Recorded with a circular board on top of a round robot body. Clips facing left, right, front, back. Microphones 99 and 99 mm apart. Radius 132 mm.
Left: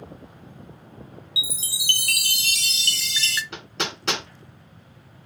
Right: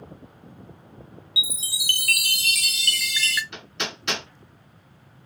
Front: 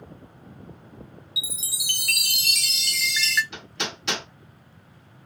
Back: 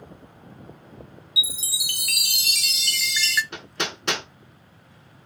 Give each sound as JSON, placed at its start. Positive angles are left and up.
{"t": 1.4, "sound": "a chime", "azimuth_deg": 90, "distance_m": 0.5}
{"t": 3.5, "sound": "hammering", "azimuth_deg": 135, "distance_m": 1.6}